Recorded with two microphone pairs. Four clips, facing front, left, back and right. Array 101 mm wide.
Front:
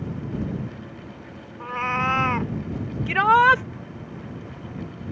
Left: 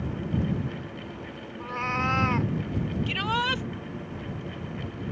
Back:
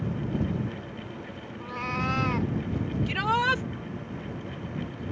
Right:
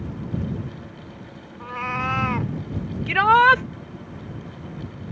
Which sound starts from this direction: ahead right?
A shout, at 3.1 s.